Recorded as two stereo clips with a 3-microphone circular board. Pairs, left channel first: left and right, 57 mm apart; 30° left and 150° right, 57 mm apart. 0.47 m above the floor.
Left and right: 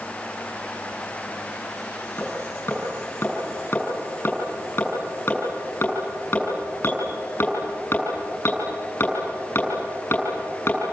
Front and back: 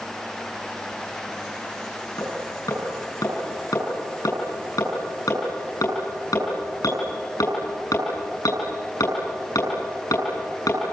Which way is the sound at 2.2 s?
40° left.